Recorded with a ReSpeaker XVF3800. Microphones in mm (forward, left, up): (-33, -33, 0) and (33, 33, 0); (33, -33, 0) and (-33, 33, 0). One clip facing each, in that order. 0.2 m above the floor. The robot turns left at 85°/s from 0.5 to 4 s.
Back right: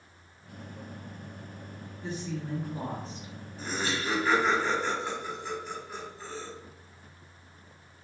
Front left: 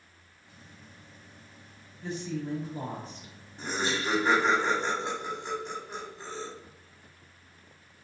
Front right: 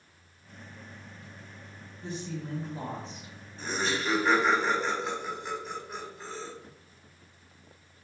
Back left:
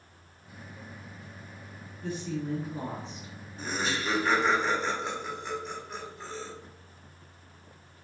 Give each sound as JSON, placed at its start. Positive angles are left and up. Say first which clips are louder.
{"t": 2.0, "sound": "a woman speaking", "louder": "front left 2 dB, back left 4 dB", "azimuth_deg": -85, "distance_m": 1.9}
{"t": 3.6, "sound": "laughter", "louder": "front left 1 dB, front right 1 dB", "azimuth_deg": 75, "distance_m": 1.2}